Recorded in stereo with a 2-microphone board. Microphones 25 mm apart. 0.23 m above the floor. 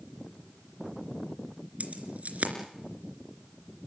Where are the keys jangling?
70° right (ahead or behind), 3 m.